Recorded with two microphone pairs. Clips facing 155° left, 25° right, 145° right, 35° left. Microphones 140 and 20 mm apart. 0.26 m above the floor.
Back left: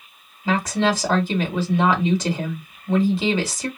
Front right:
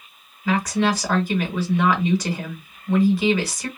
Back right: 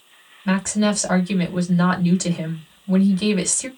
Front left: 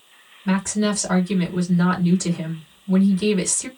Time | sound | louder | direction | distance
0.5 | a woman speaking | even, back right 1 dB | 160° right | 1.8 m